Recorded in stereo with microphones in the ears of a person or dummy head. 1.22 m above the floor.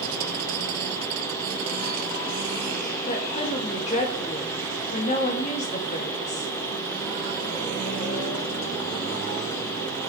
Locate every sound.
3.1 s a woman speaking: 40° left (ahead or behind), 2.5 m